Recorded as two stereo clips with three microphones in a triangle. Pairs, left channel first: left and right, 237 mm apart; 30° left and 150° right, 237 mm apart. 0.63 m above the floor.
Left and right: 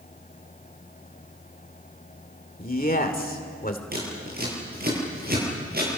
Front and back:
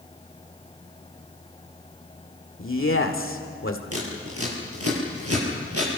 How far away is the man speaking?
About 2 m.